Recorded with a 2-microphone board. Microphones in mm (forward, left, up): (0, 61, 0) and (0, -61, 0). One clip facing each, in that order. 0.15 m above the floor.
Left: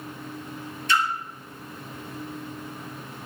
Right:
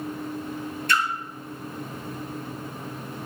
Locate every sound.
0.9 s a splash: 55° right (ahead or behind), 0.6 m